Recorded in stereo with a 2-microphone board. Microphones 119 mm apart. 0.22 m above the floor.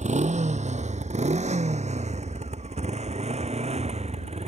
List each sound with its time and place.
0.0 s a motorcycle: 80° right; by 4.5 s 65° right (ahead or behind)